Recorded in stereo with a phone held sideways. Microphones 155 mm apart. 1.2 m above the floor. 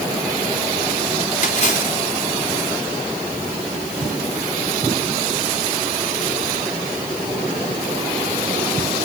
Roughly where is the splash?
Left.